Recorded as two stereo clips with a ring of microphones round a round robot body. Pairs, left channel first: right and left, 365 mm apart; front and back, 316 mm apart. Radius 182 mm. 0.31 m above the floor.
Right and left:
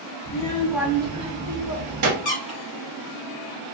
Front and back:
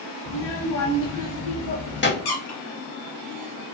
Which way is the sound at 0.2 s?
10° right.